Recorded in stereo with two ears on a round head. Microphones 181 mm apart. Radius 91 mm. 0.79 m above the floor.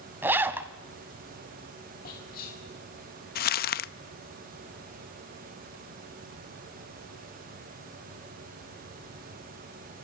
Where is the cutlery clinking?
No cutlery clinking in this recording.